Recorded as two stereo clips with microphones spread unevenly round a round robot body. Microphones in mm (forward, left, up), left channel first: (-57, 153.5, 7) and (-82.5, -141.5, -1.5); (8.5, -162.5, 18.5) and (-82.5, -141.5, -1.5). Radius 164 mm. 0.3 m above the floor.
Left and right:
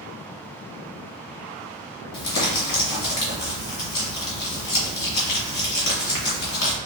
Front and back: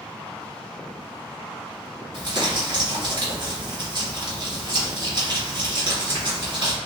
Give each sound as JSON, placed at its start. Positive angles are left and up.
{"t": 2.1, "sound": "crumpling", "azimuth_deg": 110, "distance_m": 1.9}